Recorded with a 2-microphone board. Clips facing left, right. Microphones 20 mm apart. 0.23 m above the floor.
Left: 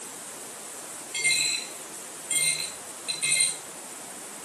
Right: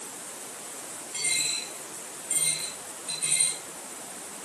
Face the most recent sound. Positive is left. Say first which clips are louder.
# left 4 dB
turn(degrees=40)  # may be behind; listen again after turning